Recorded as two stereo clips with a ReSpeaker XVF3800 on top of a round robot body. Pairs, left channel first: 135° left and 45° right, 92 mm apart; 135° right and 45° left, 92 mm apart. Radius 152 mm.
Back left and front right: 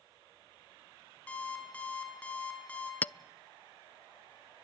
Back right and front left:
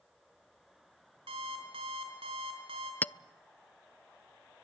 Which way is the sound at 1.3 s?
60° left.